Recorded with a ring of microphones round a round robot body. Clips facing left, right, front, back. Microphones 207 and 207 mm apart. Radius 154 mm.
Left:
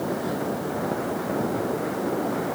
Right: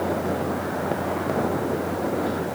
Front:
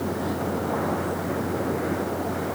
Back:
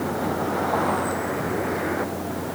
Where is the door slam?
I don't hear a door slam.